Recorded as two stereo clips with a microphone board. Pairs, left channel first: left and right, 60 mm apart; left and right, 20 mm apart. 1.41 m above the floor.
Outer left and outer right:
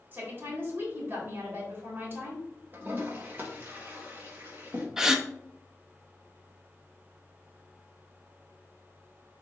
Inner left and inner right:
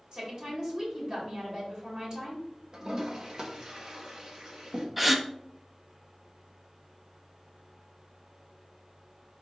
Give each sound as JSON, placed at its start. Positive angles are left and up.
{"t": 0.1, "sound": "a woman speaking", "side_deg": -35, "distance_m": 3.5}
{"t": 2.7, "sound": "a toilet flushing", "side_deg": -35, "distance_m": 1.4}
{"t": 5.0, "sound": "a gasp", "side_deg": -10, "distance_m": 0.7}